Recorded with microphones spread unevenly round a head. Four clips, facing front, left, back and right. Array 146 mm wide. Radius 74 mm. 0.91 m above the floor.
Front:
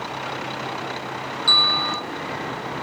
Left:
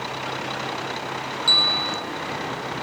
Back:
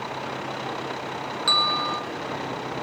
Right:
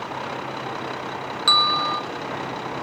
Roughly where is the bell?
Behind right.